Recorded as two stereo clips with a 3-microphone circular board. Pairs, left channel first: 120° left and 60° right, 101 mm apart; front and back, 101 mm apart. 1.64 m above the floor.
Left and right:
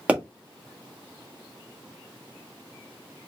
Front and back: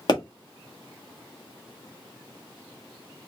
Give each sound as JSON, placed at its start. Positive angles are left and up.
{"t": 0.1, "sound": "a pop", "azimuth_deg": 10, "distance_m": 1.5}